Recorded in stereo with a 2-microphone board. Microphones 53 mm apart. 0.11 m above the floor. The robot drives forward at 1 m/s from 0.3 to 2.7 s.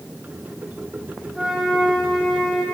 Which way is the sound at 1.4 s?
10° right (ahead or behind).